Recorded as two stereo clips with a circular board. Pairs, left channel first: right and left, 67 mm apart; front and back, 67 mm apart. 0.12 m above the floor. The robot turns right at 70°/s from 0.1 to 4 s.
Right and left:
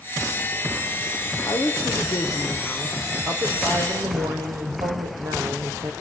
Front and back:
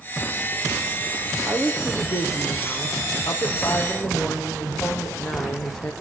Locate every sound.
1.5 s a woman speaking: 105° right, 4 m; by 5.9 s 75° left, 4 m